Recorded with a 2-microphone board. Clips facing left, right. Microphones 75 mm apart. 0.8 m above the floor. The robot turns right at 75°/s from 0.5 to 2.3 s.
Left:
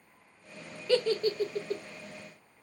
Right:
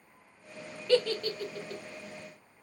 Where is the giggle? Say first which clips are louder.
Even; 5° left (ahead or behind), 0.5 m; by 1.8 s 40° left (ahead or behind), 0.5 m.